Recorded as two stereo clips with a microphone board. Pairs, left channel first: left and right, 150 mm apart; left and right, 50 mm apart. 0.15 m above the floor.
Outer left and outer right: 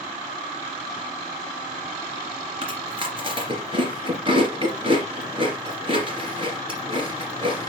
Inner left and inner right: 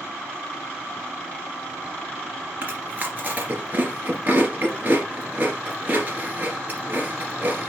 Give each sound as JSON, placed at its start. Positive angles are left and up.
{"t": 2.6, "sound": "chewing", "side_deg": -35, "distance_m": 2.5}